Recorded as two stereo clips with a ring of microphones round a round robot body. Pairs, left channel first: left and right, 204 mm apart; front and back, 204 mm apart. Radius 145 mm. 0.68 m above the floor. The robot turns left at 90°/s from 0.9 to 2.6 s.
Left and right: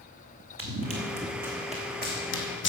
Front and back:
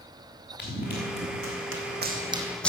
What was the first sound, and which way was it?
Running footsteps, 95° right.